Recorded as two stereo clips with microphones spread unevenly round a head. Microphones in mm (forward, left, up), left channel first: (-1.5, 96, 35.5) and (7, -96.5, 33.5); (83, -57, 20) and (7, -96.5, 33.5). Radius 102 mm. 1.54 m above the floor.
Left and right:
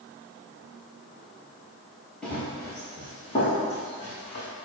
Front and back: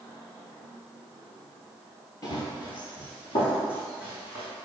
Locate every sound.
2.2 s running footsteps: 10° left, 1.6 m; by 4.5 s 40° left, 4.5 m